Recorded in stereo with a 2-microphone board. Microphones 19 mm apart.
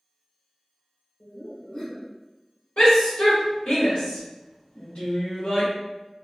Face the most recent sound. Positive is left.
turn(degrees=85)